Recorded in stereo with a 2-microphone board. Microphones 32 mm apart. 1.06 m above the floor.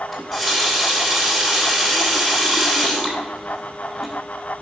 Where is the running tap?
5° right (ahead or behind), 2.0 m.